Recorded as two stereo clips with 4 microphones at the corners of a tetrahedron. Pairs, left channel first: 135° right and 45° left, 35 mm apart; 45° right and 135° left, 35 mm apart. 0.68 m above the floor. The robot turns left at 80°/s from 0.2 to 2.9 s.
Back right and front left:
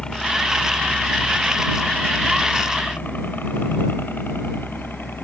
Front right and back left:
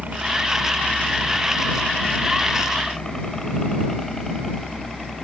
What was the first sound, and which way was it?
A helicopter, 165° left.